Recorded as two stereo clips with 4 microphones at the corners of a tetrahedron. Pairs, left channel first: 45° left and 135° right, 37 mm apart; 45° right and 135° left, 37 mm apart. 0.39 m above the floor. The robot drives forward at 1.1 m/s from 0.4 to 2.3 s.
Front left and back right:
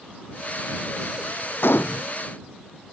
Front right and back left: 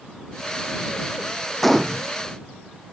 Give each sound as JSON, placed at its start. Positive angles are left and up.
{"t": 1.6, "sound": "a gunshot", "azimuth_deg": 40}